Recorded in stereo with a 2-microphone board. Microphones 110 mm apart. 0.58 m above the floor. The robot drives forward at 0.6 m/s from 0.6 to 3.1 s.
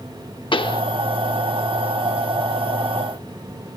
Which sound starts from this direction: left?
A pop, at 0.5 s.